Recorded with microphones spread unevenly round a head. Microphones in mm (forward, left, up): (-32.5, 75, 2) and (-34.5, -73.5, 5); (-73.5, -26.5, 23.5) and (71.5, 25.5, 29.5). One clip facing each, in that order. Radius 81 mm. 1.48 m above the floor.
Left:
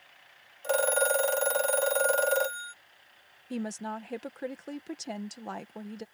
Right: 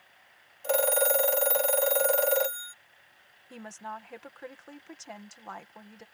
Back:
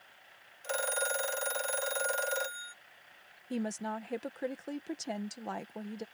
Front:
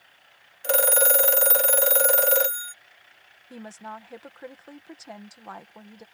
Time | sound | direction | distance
0.6 | a phone ringing | 5° right | ?
3.5 | a woman speaking | 140° left | ?